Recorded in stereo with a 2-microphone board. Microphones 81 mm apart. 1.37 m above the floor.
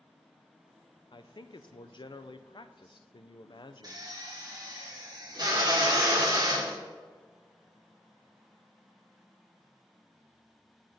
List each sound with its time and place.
1.1 s a man speaking: 70° left (ahead or behind), 0.5 m
3.8 s a drill: 55° right (ahead or behind), 1.7 m